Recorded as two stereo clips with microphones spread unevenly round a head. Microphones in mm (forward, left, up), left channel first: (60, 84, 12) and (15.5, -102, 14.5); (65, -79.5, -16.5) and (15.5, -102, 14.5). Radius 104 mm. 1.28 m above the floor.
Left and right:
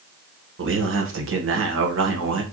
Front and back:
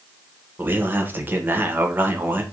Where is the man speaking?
95° right, 1.3 m.